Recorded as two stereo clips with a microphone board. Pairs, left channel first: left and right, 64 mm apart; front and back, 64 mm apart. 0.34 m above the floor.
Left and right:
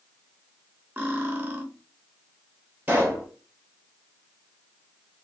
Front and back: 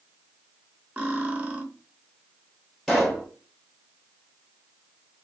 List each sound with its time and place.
1.0 s cutlery clinking: 130° right, 0.7 m
2.9 s a pop: 85° right, 1.2 m